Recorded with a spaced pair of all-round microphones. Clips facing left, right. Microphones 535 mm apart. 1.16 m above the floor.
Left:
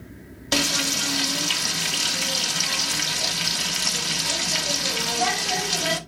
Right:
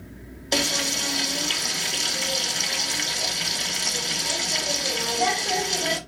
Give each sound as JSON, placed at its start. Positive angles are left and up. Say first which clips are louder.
{"t": 0.5, "sound": "frying", "louder": "left 1 dB", "side_deg": 30, "distance_m": 0.6}